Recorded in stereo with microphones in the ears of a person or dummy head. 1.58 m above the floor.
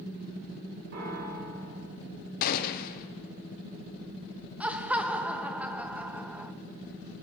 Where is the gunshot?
50° left (ahead or behind), 0.9 m.